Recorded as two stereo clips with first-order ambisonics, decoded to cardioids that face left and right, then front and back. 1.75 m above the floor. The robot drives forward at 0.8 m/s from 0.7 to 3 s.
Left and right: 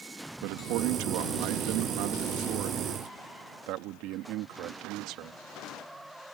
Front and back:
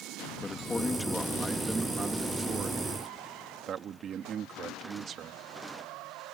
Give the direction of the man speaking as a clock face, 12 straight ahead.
3 o'clock.